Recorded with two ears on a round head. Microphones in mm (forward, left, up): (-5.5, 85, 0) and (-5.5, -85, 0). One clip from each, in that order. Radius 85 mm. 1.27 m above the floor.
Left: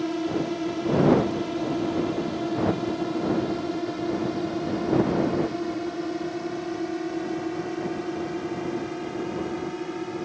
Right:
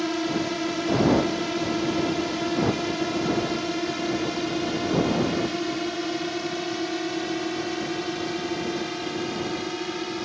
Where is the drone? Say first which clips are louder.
Right 1 dB; 45° right (ahead or behind); by 10.3 s 70° right (ahead or behind).